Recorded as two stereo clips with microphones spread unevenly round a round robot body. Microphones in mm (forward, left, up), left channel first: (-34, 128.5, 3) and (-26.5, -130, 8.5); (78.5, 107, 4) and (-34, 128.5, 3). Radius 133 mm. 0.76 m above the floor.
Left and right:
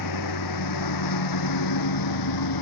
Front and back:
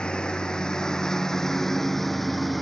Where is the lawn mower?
70° left; by 2.6 s 80° left.